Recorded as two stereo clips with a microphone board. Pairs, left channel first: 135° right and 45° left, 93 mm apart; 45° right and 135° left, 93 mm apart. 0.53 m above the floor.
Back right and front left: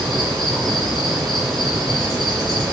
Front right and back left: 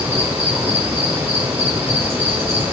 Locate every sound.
0.0 s an insect: 135° left, 3.5 m